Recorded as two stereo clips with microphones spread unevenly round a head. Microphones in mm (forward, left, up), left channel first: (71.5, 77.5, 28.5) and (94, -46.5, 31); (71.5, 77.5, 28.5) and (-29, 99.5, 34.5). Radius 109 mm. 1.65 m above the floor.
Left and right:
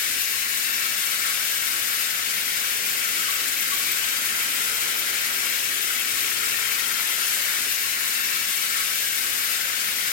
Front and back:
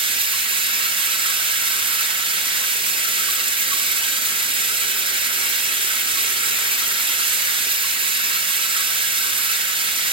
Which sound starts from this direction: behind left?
Running water, at 0.0 s.